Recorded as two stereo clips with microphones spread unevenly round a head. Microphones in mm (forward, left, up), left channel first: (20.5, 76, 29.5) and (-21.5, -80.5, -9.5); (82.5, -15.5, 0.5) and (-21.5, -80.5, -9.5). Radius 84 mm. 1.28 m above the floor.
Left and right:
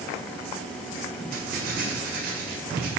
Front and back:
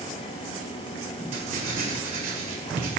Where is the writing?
145° right, 1.8 m.